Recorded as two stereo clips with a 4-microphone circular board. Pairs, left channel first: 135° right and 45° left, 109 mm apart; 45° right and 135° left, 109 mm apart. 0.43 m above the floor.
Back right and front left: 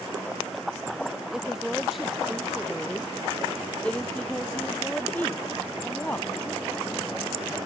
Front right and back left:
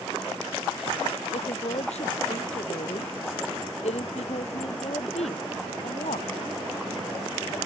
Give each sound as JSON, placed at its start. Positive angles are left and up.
{"t": 1.3, "sound": "a woman speaking", "azimuth_deg": -40}